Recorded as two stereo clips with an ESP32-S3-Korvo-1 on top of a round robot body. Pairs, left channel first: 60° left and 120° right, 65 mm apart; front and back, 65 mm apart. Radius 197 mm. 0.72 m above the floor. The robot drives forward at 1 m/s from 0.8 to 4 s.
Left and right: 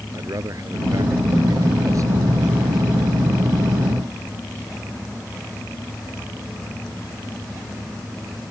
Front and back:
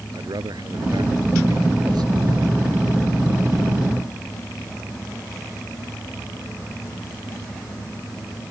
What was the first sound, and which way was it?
A man speaking, 160° right.